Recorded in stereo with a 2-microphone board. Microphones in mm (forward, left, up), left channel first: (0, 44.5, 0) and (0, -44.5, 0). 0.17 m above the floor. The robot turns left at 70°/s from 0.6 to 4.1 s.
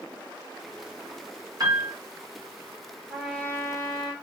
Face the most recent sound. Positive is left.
turn(degrees=120)